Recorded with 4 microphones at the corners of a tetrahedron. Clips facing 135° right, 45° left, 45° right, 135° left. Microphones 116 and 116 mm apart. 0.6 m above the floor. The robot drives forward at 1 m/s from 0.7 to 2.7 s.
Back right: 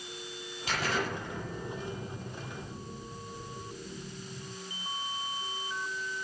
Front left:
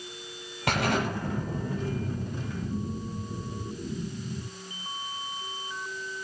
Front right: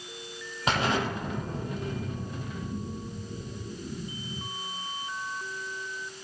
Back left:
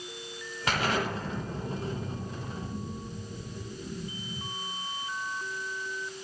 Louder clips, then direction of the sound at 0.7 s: Front left 6 dB, front right 2 dB; 25° left.